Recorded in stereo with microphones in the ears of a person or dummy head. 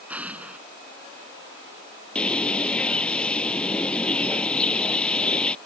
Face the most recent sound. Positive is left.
turn(degrees=15)  # may be behind; listen again after turning